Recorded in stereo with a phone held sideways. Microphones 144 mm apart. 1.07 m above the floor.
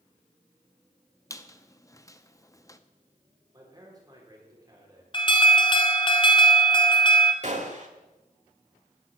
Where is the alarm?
35° left (ahead or behind), 1.1 m.